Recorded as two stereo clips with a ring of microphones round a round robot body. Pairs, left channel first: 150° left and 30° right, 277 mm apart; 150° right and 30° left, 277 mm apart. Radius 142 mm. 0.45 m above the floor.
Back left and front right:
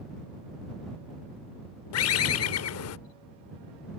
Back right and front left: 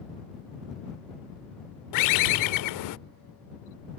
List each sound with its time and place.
1.9 s a bird: 170° right